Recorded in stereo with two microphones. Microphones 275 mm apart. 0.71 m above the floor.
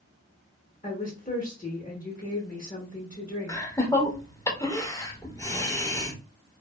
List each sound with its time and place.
0.8 s a woman speaking: 30° left (ahead or behind), 0.9 m
3.5 s laughter: 10° left (ahead or behind), 0.6 m